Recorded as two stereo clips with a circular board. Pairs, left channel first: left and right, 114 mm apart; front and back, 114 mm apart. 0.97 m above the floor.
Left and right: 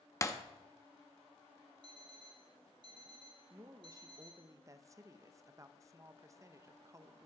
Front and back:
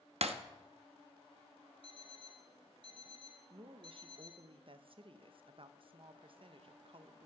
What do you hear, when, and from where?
0.2 s breaking glass: 155° left, 0.7 m
1.8 s an alarm clock: 135° right, 1.9 m
3.5 s a woman speaking: 150° right, 0.6 m